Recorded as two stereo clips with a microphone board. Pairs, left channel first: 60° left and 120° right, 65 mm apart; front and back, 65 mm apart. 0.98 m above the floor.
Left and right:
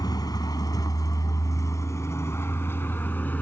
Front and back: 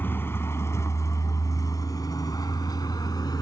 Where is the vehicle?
55° left; by 3.4 s 5° right.